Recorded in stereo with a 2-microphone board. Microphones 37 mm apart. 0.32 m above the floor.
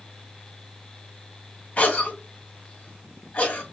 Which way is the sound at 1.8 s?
45° left (ahead or behind).